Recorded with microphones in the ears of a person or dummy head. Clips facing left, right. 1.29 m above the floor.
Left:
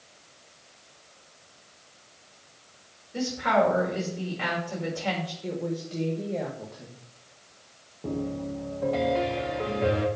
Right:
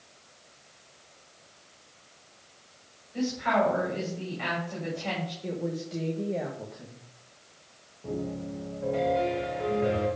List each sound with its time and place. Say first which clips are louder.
3.1 s a woman speaking: left 2 dB; 55° left (ahead or behind), 5.5 m
5.4 s a woman speaking: left 1 dB; centre (ahead or behind), 1.4 m
8.0 s a piano: left 3 dB; 65° left (ahead or behind), 1.8 m